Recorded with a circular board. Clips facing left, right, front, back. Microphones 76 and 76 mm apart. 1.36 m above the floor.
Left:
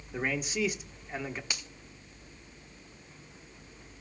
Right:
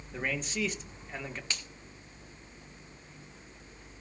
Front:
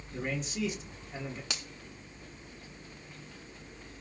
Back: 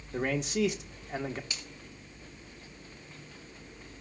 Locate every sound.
0.1 s a man speaking: 170° left, 1.5 m
1.5 s a finger snap: 15° left, 1.7 m